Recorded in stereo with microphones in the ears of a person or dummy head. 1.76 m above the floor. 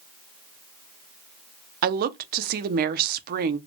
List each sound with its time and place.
1.8 s a woman speaking: 55° right (ahead or behind), 0.6 m